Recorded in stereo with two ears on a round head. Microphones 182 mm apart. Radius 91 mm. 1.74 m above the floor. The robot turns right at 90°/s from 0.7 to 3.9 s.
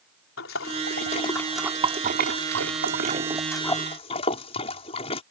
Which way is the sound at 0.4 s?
75° left (ahead or behind).